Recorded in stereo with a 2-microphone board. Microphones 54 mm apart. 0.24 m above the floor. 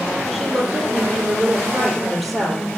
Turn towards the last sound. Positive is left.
turn(degrees=-5)  # may be behind; listen again after turning